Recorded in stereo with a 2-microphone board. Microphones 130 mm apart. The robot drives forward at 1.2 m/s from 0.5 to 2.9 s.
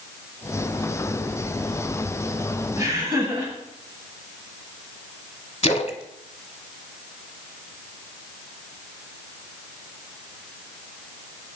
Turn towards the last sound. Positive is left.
turn(degrees=55)  # may be behind; listen again after turning